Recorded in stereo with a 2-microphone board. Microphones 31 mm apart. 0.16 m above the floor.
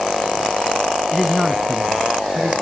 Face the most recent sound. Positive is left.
turn(degrees=-60)  # may be behind; listen again after turning